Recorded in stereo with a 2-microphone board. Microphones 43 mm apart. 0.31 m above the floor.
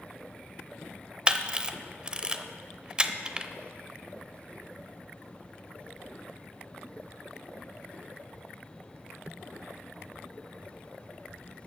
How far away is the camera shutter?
About 0.6 m.